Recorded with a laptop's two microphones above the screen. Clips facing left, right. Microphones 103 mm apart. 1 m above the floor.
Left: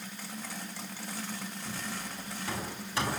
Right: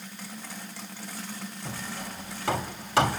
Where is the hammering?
85° right, 1.8 m.